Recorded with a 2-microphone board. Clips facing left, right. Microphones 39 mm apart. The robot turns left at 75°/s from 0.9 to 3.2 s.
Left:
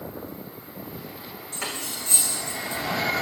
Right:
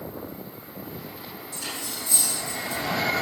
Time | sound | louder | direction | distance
1.5 | cutlery clinking | left 3 dB | 50° left (ahead or behind) | 5 m